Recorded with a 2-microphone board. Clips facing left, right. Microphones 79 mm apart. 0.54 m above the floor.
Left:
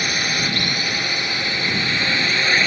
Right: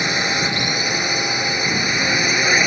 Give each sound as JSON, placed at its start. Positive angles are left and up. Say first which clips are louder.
{"t": 0.0, "sound": "a drone", "louder": "right 3 dB", "side_deg": -20}